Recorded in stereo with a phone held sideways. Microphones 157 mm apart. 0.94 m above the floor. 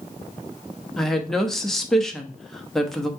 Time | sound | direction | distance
1.0 | a woman speaking | 5° left (ahead or behind) | 0.9 m